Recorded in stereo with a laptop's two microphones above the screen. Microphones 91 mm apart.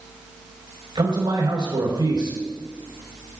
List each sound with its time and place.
0.9 s a man speaking: 65° right (ahead or behind), 4.5 m